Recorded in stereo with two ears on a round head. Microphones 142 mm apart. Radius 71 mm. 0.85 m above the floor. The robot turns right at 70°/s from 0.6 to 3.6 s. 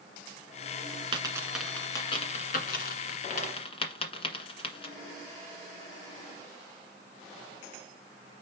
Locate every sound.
1.1 s a dropped coin: 30° right (ahead or behind), 1.6 m; by 5.0 s 35° left (ahead or behind), 1.6 m